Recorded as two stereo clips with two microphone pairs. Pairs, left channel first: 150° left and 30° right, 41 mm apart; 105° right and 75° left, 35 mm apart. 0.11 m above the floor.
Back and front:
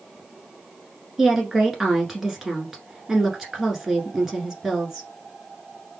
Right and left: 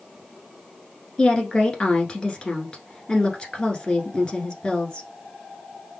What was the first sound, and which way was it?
A woman speaking, 100° right.